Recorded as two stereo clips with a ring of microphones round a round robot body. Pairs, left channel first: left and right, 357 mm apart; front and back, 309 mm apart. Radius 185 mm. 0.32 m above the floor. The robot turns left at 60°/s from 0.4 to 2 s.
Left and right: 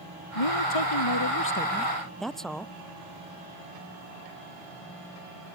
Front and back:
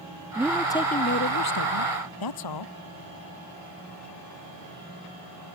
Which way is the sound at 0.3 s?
95° left.